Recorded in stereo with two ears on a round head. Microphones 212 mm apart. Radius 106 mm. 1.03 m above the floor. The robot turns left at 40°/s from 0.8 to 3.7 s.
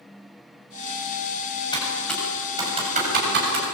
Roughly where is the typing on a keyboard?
Centre.